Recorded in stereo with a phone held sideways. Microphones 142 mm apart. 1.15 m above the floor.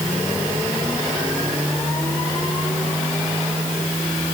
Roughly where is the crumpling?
I don't hear crumpling.